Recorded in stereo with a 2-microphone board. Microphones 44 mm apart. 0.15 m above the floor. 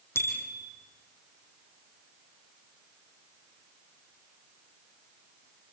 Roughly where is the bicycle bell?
Left.